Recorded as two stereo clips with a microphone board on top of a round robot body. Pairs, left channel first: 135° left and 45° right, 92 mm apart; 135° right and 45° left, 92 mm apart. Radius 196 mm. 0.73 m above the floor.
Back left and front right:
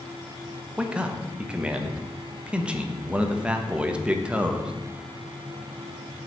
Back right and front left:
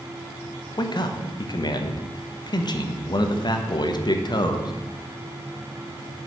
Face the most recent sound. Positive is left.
turn(degrees=-120)